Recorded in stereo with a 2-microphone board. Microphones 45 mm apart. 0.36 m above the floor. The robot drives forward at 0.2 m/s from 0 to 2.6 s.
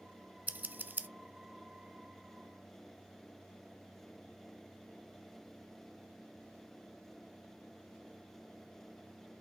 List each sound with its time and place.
0.5 s scissors: 40° right (ahead or behind), 0.8 m; by 1.1 s 45° right (ahead or behind), 0.8 m